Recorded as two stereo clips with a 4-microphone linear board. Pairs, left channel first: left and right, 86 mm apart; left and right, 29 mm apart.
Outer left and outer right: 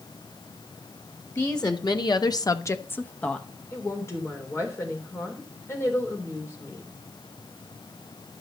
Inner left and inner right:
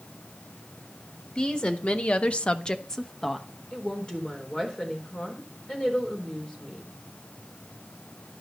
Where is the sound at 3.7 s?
30° left (ahead or behind), 3.5 m.